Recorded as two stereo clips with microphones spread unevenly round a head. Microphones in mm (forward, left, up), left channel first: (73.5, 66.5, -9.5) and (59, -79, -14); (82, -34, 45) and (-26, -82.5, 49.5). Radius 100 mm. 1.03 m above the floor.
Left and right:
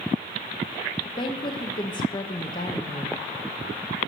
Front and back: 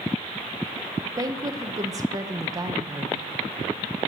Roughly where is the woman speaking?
Behind left.